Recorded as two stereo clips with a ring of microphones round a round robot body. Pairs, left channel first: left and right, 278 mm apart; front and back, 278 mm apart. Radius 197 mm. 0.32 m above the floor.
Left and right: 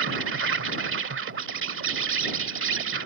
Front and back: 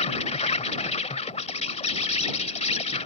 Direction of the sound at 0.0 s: 60° right.